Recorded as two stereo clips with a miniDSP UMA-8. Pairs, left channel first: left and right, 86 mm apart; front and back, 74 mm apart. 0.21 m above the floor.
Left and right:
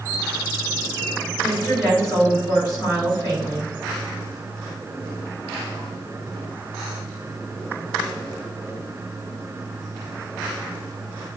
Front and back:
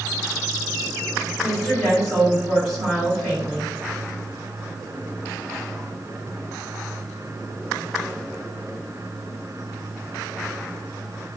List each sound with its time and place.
1.4 s a woman speaking: 85° left, 1.9 m